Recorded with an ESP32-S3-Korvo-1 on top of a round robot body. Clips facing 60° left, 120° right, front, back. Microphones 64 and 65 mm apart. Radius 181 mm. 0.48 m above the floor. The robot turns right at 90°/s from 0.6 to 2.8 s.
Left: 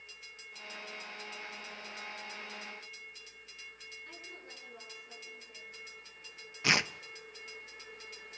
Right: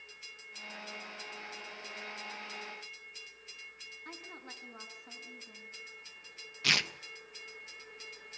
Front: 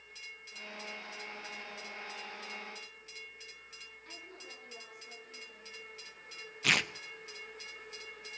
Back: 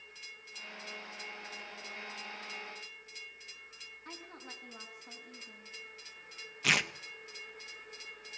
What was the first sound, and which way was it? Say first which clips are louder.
A woman speaking: right 5 dB, back 3 dB; 130° right.